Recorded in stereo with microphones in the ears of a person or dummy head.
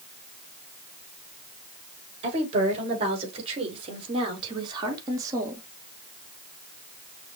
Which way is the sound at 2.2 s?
40° right (ahead or behind).